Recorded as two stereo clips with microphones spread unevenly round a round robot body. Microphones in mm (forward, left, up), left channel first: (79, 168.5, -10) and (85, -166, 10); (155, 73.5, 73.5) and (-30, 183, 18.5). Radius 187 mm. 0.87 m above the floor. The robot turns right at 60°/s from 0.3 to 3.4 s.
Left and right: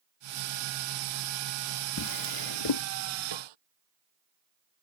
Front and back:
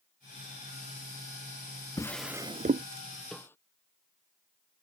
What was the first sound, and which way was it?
A drawer, 45° left.